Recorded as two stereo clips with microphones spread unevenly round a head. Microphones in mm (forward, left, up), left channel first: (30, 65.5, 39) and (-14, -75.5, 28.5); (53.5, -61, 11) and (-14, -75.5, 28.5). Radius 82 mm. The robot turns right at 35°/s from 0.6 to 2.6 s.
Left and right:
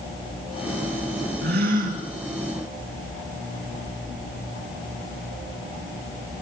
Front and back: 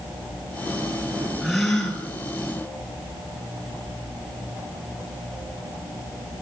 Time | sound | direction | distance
1.4 | a gasp | 90° right | 5 m